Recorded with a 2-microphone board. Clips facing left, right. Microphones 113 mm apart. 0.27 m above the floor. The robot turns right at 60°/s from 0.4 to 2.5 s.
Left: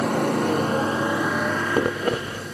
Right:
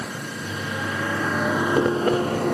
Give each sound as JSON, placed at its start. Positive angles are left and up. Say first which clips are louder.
{"t": 0.0, "sound": "a motorcycle", "louder": "left 11 dB", "azimuth_deg": 120}